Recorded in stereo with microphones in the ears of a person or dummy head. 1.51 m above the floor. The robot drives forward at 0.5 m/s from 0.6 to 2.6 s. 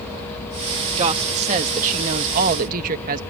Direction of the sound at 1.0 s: 35° right (ahead or behind).